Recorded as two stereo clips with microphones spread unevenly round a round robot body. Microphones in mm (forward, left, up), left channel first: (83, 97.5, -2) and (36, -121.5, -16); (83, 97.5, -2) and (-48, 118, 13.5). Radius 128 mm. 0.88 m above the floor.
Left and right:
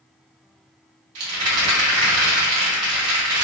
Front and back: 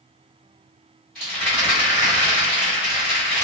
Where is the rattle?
95° right, 1.2 m.